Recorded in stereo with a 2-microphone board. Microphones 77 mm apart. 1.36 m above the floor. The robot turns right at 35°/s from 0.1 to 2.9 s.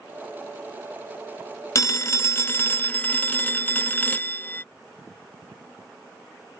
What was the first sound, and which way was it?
A phone ringing, 105° left.